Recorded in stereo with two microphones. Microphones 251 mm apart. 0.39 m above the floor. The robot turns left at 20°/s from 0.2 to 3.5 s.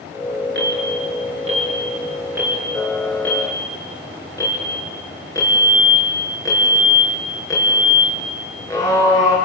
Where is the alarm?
45° right (ahead or behind), 5.5 m; by 9.4 s 15° left (ahead or behind), 5.5 m.